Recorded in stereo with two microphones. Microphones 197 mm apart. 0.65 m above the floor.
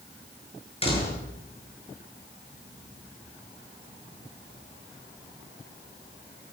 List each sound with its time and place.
0.8 s a door slam: 30° left (ahead or behind), 8 m